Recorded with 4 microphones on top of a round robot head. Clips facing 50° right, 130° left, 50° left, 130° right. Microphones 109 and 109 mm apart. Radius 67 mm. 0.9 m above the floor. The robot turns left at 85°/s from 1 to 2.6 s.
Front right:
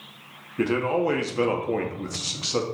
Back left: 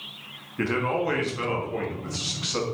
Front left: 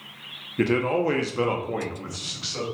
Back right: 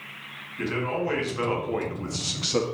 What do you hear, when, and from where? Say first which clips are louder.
0.6 s a man speaking: front right 3 dB, front left 6 dB; 25° left, 1.9 m; by 2.6 s 115° right, 1.9 m